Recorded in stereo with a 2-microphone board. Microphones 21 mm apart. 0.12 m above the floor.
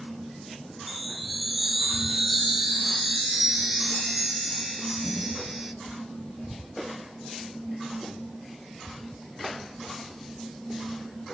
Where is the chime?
5° right (ahead or behind), 0.8 m.